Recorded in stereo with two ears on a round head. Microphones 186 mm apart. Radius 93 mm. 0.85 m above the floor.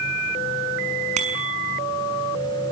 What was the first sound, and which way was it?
A bicycle bell, 35° right (ahead or behind).